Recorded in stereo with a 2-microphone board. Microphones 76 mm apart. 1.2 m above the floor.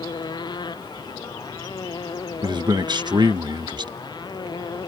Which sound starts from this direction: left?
A motorcycle, at 0.0 s.